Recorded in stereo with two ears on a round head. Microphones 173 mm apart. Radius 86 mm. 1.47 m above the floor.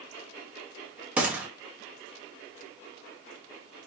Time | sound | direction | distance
1.2 | a gunshot | 10° right (ahead or behind) | 1.1 m